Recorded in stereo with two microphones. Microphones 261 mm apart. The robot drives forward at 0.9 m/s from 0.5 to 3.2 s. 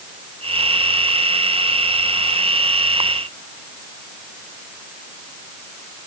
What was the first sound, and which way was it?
Only background noise.